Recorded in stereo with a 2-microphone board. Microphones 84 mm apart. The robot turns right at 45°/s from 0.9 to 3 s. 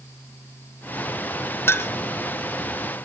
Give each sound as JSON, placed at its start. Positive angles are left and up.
{"t": 1.7, "sound": "a clink", "side_deg": 25, "distance_m": 0.6}